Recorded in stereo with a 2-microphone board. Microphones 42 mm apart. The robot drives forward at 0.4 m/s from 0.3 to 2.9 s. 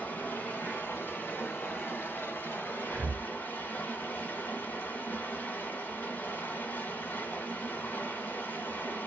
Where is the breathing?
45° right (ahead or behind), 0.8 m; by 3.3 s 40° right (ahead or behind), 0.8 m.